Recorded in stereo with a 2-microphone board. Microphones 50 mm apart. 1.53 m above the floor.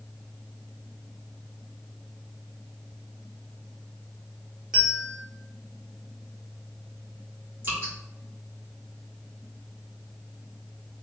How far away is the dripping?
About 1.8 m.